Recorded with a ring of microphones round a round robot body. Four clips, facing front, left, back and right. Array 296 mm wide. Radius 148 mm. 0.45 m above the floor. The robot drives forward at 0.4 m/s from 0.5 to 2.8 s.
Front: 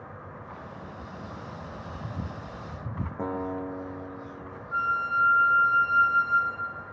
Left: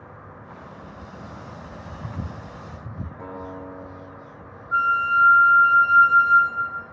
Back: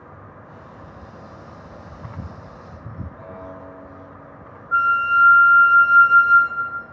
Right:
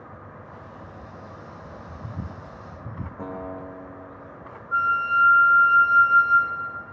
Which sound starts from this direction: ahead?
A guitar, at 3.2 s.